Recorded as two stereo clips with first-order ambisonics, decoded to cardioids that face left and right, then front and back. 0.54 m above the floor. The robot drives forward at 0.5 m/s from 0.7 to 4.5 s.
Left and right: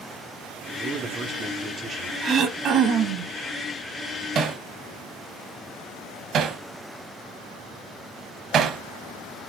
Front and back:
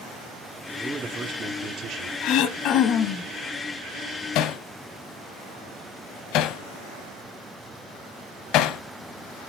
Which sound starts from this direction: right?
A man speaking, at 0.8 s.